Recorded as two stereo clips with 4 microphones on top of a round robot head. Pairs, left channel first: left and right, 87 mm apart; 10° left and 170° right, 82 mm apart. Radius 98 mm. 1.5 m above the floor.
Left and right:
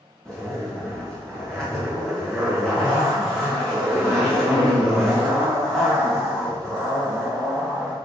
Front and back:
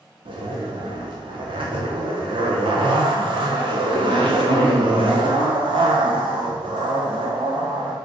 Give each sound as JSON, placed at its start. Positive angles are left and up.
{"t": 0.2, "sound": "a zipper", "azimuth_deg": 175, "distance_m": 1.9}